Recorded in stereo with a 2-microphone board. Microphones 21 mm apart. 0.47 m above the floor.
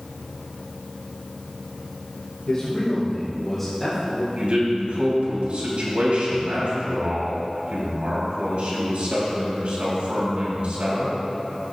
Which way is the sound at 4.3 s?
70° right (ahead or behind).